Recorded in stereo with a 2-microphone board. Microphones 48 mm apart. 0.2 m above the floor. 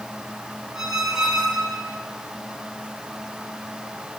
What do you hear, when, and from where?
0.8 s a squeak: 10° right (ahead or behind), 1.3 m